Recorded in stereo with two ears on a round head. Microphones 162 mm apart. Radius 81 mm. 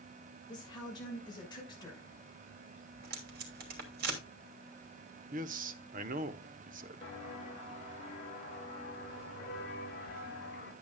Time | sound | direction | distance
0.5 | a woman speaking | 25° left (ahead or behind) | 6 m
3.0 | tape being pulled | 60° right (ahead or behind) | 3 m
5.3 | a man speaking | 45° right (ahead or behind) | 0.9 m
7.0 | footsteps | 35° left (ahead or behind) | 5.5 m